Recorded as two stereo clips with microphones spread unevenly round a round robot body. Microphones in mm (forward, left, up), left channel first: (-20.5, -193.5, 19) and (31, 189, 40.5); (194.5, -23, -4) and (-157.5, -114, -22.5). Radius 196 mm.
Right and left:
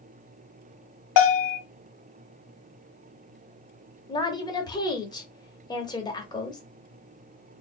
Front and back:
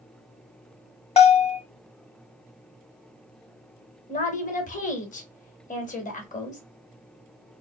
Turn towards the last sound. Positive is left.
turn(degrees=-35)